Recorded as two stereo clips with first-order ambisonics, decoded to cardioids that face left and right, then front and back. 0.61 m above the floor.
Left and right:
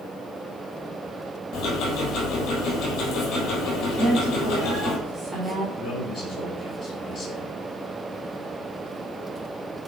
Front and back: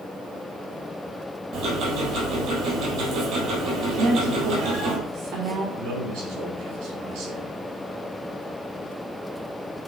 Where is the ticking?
135° left, 3 m.